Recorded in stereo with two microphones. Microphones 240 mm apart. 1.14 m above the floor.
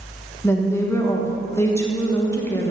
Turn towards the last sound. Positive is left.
turn(degrees=10)  # may be behind; listen again after turning